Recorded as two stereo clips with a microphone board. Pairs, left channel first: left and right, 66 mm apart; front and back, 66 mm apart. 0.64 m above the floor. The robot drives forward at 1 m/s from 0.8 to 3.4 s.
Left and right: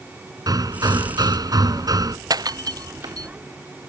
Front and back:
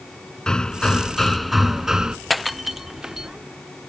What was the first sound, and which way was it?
Hammering, 80° right.